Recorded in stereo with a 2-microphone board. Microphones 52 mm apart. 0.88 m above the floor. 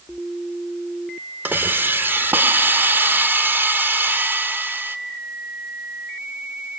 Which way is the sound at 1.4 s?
40° right (ahead or behind).